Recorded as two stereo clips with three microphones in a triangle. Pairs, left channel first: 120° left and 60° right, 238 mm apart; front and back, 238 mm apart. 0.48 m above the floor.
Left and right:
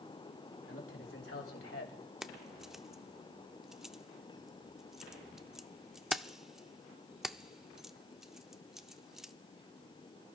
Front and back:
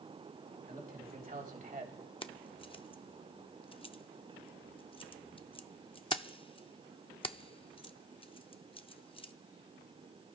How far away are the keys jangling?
About 0.5 m.